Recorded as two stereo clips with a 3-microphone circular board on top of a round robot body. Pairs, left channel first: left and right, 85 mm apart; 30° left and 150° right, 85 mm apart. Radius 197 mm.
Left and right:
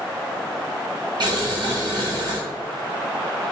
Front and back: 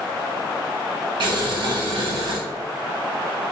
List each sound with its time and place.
1.2 s boiling: 125° right, 1.1 m